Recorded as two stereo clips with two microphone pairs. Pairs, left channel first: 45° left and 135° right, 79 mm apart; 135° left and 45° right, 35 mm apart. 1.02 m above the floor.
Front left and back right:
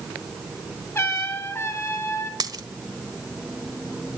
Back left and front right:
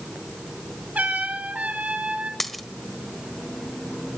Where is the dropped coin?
145° right, 1.2 m.